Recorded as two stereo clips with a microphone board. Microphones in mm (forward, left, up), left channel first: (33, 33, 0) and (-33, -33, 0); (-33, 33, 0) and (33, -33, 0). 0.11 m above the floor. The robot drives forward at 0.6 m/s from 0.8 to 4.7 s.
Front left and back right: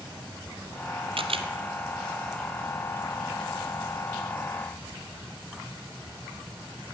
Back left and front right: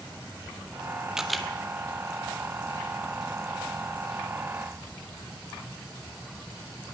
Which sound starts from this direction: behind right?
A camera shutter, at 1.2 s.